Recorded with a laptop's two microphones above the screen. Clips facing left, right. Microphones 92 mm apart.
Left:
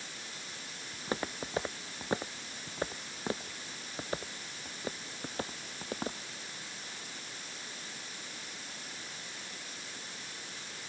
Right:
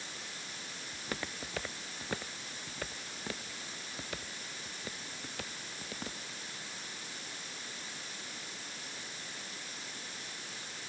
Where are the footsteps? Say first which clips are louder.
Left 5 dB; 25° left (ahead or behind); by 6.2 s 35° left (ahead or behind).